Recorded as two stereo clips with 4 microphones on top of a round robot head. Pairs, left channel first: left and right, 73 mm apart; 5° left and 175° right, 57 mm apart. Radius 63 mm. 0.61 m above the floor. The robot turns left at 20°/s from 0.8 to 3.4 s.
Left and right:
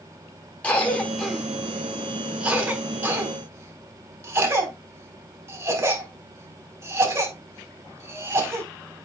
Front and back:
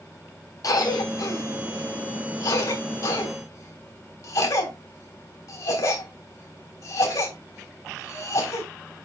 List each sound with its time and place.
0.6 s a cough: 20° left, 4 m; by 8.7 s 30° right, 4 m